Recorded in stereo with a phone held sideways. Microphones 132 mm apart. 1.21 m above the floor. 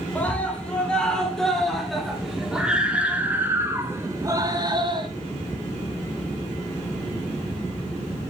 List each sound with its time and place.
0.1 s a scream: 10° left (ahead or behind), 4 m; by 5.1 s 35° right (ahead or behind), 2.5 m